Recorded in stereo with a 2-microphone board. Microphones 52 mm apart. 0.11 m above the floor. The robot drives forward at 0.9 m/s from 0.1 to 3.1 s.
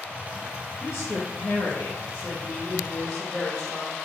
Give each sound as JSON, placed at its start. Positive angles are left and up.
{"t": 0.8, "sound": "a woman speaking", "side_deg": 55, "distance_m": 2.0}